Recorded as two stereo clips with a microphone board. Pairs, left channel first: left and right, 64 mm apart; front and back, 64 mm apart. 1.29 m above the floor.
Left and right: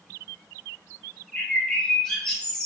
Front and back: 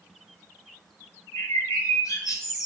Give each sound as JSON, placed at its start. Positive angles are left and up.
{"t": 1.3, "sound": "a bird", "azimuth_deg": 15, "distance_m": 6.0}